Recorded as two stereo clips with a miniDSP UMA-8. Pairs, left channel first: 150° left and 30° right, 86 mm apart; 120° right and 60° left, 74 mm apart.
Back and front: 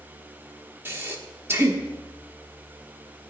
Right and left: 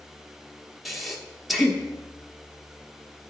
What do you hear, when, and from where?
0.8 s breathing: 30° right, 1.2 m